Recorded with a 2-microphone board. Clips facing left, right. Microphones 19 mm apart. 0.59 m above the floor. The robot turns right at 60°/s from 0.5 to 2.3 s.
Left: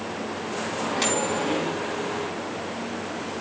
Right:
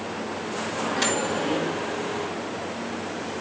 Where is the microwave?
5° right, 3.5 m; by 1.8 s 60° left, 3.5 m.